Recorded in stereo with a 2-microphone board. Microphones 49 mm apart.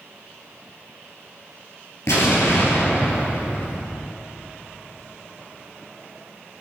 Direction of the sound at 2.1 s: 80° left.